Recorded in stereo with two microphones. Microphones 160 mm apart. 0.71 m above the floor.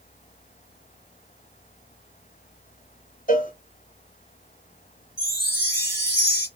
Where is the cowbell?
55° left (ahead or behind), 1.8 m.